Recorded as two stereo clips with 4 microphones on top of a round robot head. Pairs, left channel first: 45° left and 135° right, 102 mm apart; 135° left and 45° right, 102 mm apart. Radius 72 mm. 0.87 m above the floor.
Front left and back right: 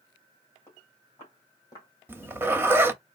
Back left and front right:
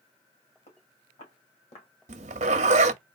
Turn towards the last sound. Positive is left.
turn(degrees=-60)